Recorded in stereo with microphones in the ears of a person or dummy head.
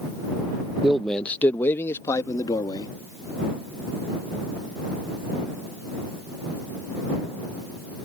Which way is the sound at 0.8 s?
Centre (ahead or behind).